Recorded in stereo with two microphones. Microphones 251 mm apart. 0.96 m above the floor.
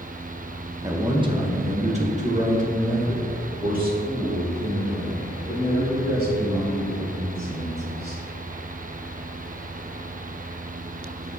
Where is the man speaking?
15° right (ahead or behind), 1.0 m; by 8.2 s 40° right (ahead or behind), 4.5 m.